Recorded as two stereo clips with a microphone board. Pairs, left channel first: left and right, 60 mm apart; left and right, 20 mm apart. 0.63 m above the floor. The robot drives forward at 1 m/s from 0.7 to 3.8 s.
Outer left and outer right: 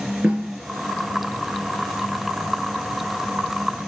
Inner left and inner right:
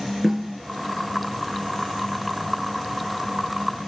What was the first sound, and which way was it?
A snare drum, 20° right (ahead or behind).